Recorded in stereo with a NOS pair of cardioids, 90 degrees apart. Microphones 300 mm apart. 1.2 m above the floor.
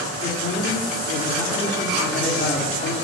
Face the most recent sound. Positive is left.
turn(degrees=30)